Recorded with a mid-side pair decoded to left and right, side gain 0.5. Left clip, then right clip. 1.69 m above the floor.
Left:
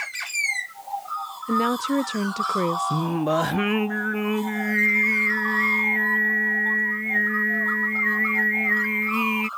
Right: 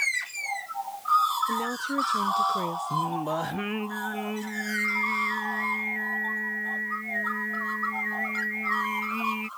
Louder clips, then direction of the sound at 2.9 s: Left 4 dB; 50° left.